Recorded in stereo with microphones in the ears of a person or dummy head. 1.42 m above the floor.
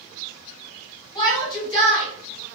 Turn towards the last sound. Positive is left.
turn(degrees=15)  # may be behind; listen again after turning